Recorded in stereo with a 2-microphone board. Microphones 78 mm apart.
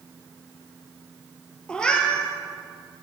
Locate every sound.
1.7 s a cat meowing: 10° left (ahead or behind), 0.8 m